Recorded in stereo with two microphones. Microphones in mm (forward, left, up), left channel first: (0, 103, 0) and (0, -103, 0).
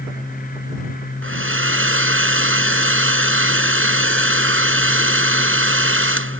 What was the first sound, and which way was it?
A hair dryer, 80° right.